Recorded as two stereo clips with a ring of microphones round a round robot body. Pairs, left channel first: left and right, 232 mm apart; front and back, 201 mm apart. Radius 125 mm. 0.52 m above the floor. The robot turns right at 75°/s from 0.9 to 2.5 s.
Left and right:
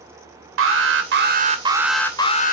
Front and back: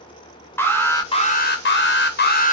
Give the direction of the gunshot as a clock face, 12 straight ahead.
No gunshot in this recording.